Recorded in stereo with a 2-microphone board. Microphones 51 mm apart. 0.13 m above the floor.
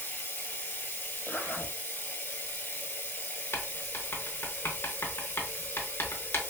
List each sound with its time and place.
0.0 s running water: 35° left (ahead or behind), 0.7 m
1.3 s a zipper: 40° left (ahead or behind), 0.8 m
3.5 s writing: 50° left (ahead or behind), 0.7 m